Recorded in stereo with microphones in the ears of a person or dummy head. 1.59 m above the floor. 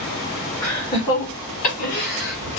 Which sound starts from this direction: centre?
Laughter, at 0.6 s.